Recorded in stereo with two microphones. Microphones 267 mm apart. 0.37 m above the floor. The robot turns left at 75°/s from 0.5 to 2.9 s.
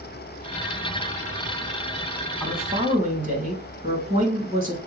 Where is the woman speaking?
5° left, 2.5 m; by 4.8 s 35° right, 2.5 m.